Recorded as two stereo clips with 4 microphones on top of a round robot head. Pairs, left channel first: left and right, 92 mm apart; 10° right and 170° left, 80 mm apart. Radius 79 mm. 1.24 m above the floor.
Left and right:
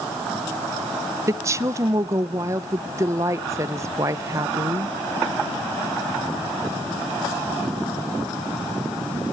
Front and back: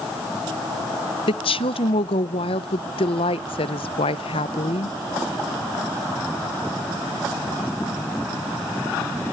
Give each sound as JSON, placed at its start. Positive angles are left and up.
{"t": 1.3, "sound": "a woman speaking", "azimuth_deg": -25, "distance_m": 0.6}